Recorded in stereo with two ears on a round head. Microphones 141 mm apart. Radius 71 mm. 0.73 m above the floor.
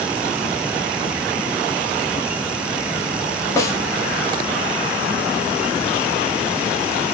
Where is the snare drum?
20° left (ahead or behind), 0.6 m.